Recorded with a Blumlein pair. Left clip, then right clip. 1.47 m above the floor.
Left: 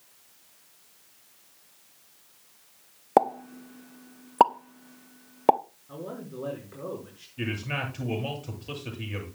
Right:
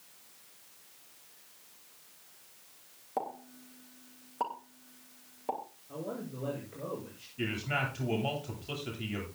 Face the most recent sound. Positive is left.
turn(degrees=35)